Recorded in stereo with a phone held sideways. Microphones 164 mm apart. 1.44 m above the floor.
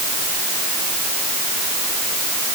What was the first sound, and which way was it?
Only background noise.